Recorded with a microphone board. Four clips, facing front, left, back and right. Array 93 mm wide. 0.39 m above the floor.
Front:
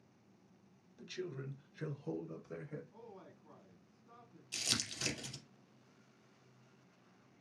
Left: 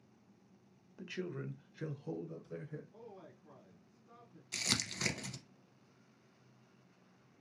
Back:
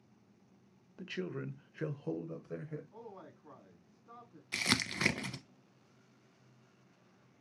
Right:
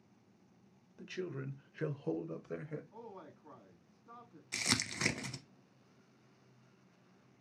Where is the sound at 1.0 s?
165° left, 1.0 m; by 2.8 s 100° right, 1.5 m.